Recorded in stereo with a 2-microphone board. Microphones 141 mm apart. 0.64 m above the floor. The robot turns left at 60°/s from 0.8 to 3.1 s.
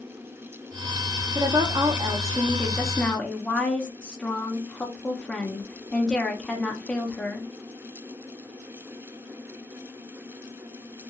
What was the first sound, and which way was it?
A woman speaking, 85° right.